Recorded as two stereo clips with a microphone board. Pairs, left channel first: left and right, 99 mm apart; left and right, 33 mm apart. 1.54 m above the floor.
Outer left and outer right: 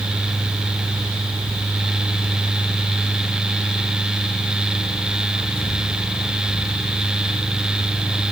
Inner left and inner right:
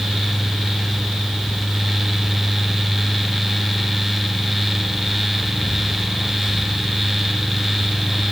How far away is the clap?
I don't hear a clap.